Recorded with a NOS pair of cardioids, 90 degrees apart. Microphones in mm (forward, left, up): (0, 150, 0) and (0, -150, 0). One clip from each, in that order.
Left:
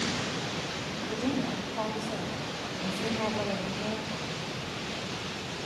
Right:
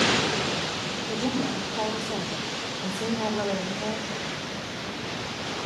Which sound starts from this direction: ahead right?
A woman speaking, at 1.1 s.